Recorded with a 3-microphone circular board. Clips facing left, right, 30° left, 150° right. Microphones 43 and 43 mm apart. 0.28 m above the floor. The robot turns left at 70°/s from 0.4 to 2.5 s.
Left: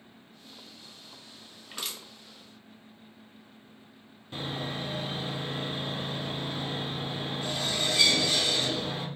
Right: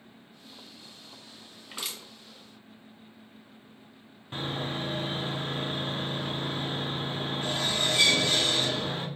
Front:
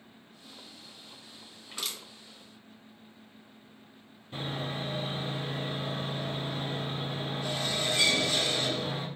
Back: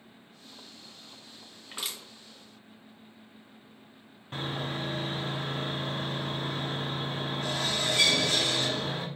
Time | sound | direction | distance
1.7 | crushing | 145° right | 1.4 m
4.3 | sawing | 130° right | 1.1 m